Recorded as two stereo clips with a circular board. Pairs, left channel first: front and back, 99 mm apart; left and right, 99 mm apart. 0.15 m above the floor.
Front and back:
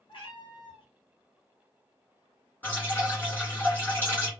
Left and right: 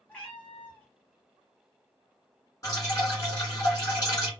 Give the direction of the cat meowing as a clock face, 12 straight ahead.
11 o'clock.